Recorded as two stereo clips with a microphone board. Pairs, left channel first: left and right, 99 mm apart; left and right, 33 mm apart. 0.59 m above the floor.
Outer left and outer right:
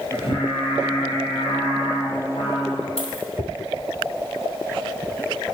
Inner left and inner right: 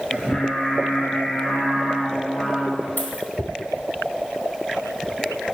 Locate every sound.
0.1 s singing: 60° left (ahead or behind), 4.5 m
3.0 s a dropped coin: 75° left (ahead or behind), 2.5 m